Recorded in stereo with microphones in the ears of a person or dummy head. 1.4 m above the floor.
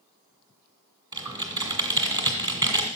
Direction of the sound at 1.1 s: 25° right (ahead or behind).